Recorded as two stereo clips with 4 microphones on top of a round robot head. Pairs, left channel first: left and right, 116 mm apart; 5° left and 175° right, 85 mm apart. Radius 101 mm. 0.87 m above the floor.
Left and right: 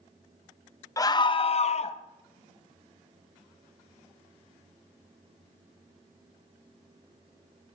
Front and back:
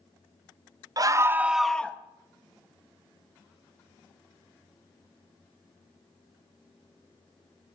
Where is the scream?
150° left, 0.8 m; by 2.0 s 75° left, 0.9 m.